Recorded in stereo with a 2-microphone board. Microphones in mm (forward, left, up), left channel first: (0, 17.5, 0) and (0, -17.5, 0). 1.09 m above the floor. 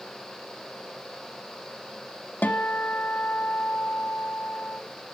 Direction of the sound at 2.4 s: 75° left (ahead or behind).